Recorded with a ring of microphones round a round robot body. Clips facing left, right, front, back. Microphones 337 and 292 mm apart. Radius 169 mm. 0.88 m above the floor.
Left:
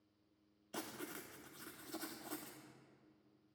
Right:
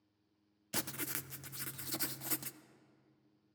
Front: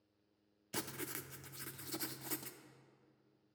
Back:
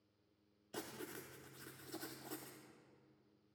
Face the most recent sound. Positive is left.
turn(degrees=-55)